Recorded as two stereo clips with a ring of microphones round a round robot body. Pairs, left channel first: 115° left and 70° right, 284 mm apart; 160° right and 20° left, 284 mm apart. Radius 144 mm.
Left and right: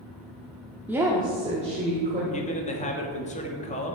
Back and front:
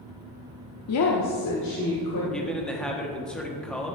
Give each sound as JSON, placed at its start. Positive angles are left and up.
{"t": 0.9, "sound": "a woman speaking", "azimuth_deg": -150, "distance_m": 0.9}
{"t": 2.3, "sound": "a man speaking", "azimuth_deg": 120, "distance_m": 1.3}